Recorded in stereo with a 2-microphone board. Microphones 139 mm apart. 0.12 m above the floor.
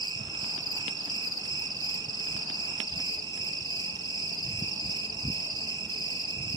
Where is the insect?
30° right (ahead or behind), 1.3 m.